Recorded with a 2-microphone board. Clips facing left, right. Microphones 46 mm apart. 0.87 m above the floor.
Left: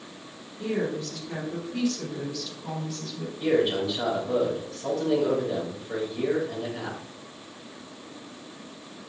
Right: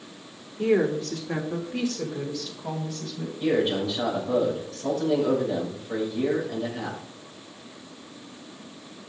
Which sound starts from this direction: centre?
A man speaking, at 3.4 s.